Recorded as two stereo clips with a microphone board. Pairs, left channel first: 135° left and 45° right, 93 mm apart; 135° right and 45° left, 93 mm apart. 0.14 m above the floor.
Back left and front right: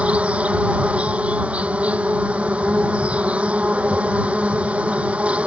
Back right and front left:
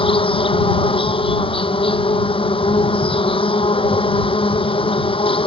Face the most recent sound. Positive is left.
turn(degrees=-120)